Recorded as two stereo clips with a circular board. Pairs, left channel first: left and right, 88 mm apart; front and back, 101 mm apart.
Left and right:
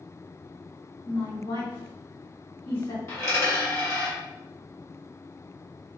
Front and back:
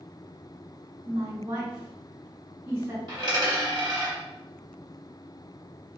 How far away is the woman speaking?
About 1.8 m.